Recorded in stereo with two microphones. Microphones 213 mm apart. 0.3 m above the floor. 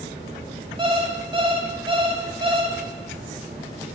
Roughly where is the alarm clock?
Right.